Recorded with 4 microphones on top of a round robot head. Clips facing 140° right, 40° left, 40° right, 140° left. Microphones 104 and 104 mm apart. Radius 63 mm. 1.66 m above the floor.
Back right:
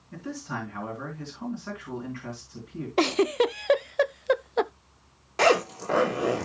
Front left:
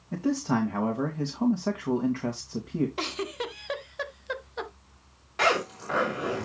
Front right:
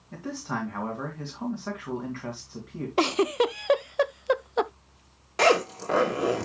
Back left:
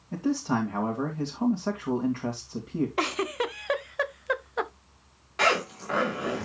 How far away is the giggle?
About 0.5 m.